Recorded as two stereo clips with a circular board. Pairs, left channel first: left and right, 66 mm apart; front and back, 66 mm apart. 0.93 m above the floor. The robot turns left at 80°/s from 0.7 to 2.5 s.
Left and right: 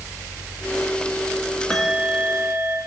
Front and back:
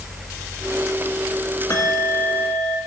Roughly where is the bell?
Ahead.